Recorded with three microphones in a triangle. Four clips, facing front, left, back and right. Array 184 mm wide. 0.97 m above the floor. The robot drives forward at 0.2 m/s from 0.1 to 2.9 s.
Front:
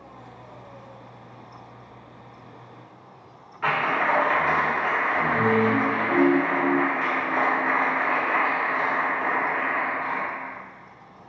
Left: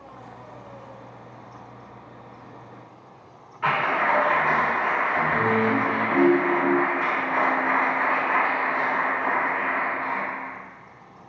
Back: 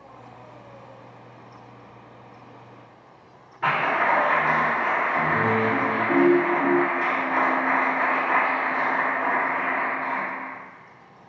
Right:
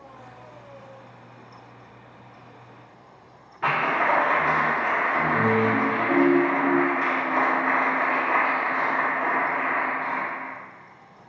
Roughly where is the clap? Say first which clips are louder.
Even, back 1 dB; behind right.